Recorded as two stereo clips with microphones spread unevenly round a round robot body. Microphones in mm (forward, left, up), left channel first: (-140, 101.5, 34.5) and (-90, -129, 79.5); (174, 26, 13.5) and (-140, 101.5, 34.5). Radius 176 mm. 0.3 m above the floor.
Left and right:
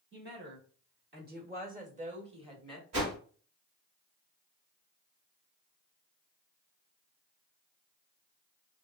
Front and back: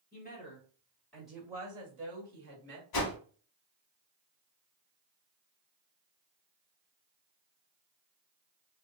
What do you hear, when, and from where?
0.1 s a woman speaking: 55° right, 1.4 m; by 2.8 s 155° right, 1.4 m
2.9 s a whoosh: 40° right, 0.9 m